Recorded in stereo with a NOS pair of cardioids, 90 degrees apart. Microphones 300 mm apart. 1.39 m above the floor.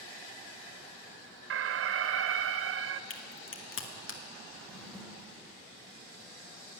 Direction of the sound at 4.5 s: Straight ahead.